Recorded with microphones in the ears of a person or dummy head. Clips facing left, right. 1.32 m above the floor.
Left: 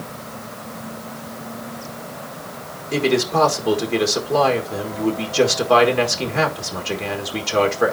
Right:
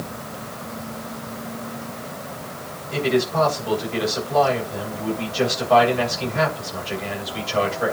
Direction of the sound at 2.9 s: 55° left (ahead or behind).